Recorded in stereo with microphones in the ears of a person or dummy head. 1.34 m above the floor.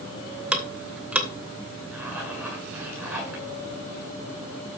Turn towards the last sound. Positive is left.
turn(degrees=-15)  # may be behind; listen again after turning